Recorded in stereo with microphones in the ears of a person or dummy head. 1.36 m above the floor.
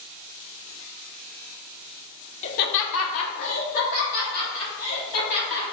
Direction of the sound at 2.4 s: 35° left (ahead or behind).